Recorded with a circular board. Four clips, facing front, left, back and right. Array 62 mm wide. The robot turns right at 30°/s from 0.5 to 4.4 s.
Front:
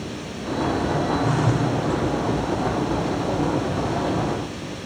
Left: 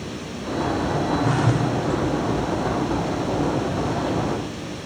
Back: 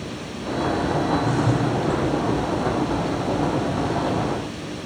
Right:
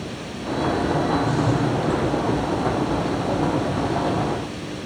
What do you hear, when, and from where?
1.2 s a phone buzzing: 60° left, 3 m; by 1.7 s 75° left, 3 m